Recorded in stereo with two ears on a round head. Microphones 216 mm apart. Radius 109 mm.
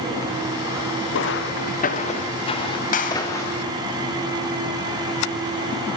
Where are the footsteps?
55° left (ahead or behind), 2 m; by 3.7 s 10° left (ahead or behind), 5 m.